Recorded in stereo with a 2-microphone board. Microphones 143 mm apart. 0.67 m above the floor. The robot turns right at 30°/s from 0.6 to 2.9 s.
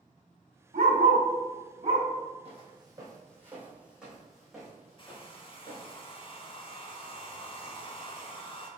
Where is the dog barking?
75° right (ahead or behind), 1.6 m; by 2.1 s 35° right (ahead or behind), 1.6 m.